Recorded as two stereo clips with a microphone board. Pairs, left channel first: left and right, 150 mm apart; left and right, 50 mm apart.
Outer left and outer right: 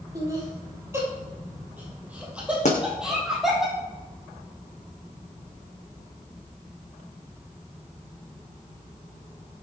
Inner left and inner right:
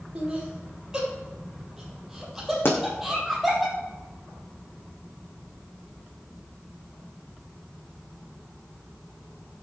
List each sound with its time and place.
0.1 s laughter: 25° right (ahead or behind), 3.5 m; by 3.6 s centre (ahead or behind), 5 m
2.6 s a pop: 50° left (ahead or behind), 3 m